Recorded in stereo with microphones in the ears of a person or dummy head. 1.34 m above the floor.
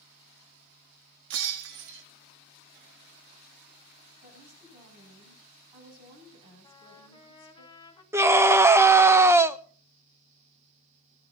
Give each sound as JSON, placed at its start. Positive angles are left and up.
{"t": 1.3, "sound": "breaking glass", "side_deg": -65, "distance_m": 1.4}
{"t": 4.2, "sound": "a woman speaking", "side_deg": -20, "distance_m": 10.0}
{"t": 6.6, "sound": "a trumpet", "side_deg": 30, "distance_m": 2.0}
{"t": 8.1, "sound": "a scream", "side_deg": -5, "distance_m": 0.6}